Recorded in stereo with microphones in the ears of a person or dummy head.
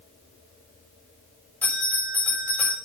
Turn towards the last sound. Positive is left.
turn(degrees=10)  # may be behind; listen again after turning